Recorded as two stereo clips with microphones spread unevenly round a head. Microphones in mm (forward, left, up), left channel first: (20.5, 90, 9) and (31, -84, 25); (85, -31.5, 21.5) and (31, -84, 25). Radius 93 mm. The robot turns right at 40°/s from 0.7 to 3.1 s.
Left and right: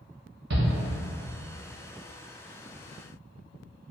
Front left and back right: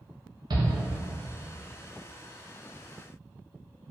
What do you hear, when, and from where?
0.5 s a shout: 120° right, 1.1 m